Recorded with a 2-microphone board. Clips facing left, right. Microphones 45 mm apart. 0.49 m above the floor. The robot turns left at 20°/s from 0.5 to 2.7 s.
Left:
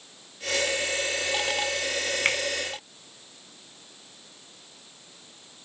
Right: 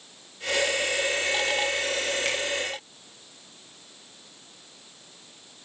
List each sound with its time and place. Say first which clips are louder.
2.2 s a finger snap: left 3 dB; 40° left (ahead or behind), 1.6 m